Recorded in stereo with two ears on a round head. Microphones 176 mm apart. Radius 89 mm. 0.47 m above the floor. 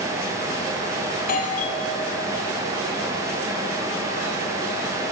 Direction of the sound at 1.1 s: 50° left (ahead or behind).